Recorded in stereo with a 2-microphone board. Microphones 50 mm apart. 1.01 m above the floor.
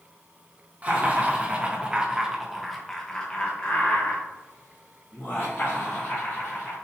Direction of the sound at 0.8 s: 30° right (ahead or behind).